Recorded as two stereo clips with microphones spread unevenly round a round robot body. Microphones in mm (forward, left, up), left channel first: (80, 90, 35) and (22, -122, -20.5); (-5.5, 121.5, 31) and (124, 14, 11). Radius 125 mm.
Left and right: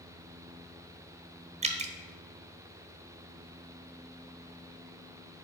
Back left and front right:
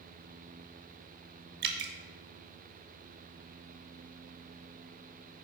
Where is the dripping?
45° right, 1.1 m.